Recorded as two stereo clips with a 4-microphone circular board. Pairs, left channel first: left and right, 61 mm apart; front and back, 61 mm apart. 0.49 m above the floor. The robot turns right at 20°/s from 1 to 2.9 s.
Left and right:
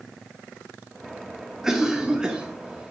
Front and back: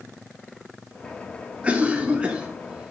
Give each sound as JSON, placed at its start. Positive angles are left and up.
{"t": 1.6, "sound": "a cough", "azimuth_deg": -155, "distance_m": 1.0}